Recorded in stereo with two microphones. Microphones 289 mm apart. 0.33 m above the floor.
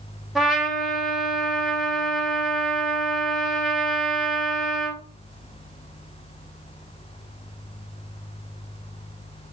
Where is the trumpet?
Centre (ahead or behind), 0.7 m.